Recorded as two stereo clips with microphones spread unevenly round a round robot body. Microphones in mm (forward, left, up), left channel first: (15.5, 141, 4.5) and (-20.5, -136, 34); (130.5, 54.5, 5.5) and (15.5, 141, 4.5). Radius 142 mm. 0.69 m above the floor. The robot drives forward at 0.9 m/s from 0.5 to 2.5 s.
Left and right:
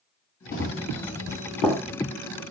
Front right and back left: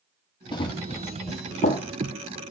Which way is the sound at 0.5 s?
20° left.